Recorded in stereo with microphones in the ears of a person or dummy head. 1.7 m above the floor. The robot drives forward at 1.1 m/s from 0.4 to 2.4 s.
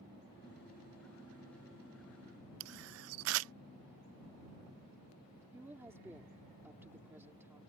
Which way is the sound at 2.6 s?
70° right (ahead or behind).